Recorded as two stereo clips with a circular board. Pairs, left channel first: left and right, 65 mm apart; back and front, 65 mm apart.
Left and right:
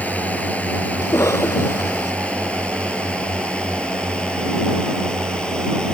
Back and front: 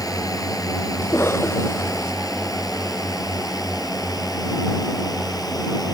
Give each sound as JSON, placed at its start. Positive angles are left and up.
{"t": 0.0, "sound": "a drone", "azimuth_deg": 155}
{"t": 1.0, "sound": "a cough", "azimuth_deg": 130}